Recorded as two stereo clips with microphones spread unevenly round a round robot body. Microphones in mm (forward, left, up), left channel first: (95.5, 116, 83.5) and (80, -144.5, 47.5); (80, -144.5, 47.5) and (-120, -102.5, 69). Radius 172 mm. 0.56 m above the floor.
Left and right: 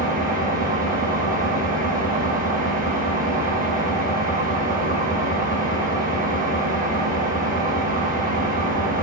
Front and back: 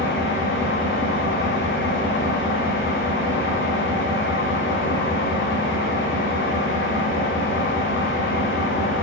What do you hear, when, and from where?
0.0 s an engine running: 35° right, 1.7 m